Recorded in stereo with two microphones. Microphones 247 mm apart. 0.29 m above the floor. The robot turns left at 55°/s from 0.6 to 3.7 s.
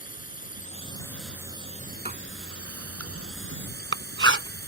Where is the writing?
25° right (ahead or behind); by 4.7 s 55° right (ahead or behind).